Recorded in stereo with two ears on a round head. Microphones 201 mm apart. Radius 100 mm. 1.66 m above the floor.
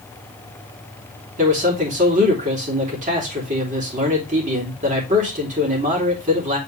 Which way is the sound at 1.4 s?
35° right (ahead or behind).